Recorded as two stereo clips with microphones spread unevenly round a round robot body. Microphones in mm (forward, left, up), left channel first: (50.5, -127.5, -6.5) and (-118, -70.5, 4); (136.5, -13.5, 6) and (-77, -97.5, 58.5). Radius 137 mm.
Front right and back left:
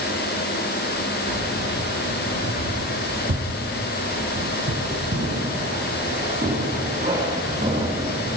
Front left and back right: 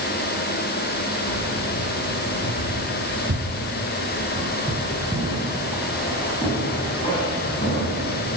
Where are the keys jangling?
175° right, 6 m; by 8.4 s 85° left, 6.5 m.